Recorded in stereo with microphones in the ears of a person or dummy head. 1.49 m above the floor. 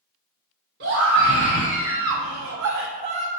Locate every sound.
0.8 s a scream: 60° right (ahead or behind), 1.6 m; by 3.3 s 30° right (ahead or behind), 0.6 m